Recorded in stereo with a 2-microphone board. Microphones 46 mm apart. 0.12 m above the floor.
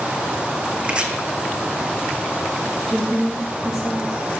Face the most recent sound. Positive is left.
turn(degrees=-5)  # may be behind; listen again after turning